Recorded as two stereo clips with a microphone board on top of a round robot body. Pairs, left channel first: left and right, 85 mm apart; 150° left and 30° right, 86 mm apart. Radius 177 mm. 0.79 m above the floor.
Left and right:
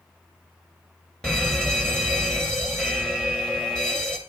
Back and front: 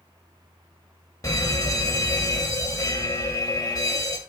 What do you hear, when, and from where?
1.2 s a fire alarm: 170° left, 2.5 m